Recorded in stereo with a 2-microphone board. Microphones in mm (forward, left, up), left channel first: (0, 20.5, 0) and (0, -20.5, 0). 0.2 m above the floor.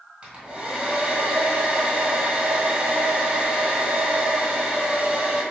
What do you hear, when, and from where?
0.2 s a hair dryer: 25° right (ahead or behind), 1.4 m